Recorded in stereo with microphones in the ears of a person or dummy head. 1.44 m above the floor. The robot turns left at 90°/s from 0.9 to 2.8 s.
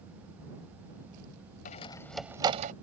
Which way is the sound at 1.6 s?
45° left (ahead or behind).